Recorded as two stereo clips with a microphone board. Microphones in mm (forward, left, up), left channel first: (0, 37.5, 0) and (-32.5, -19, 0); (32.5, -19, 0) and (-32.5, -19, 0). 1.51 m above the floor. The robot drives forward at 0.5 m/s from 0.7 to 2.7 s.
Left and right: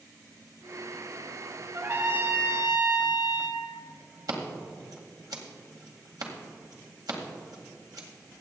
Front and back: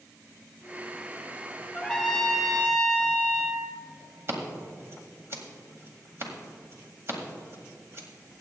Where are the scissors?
130° right, 1.9 m.